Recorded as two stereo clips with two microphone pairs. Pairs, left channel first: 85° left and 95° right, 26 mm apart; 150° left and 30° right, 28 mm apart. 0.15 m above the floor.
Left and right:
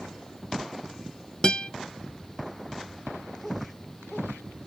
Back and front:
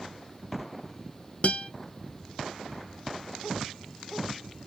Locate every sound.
1.4 s a guitar: 135° left, 1.1 m